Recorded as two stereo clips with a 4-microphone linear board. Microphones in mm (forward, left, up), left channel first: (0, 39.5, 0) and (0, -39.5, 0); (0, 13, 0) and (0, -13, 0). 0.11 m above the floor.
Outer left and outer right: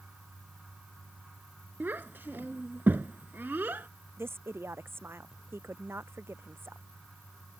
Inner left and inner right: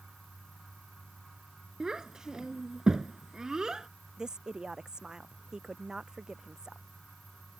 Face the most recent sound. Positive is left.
turn(degrees=-30)  # may be behind; listen again after turning